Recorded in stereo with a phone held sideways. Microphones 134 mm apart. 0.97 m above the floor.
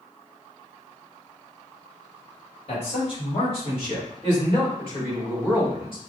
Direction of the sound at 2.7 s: 45° left (ahead or behind).